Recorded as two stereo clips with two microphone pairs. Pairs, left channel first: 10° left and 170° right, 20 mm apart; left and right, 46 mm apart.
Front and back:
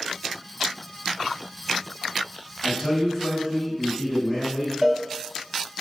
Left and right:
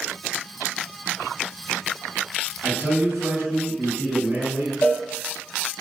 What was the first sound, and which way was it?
A man speaking, 110° right.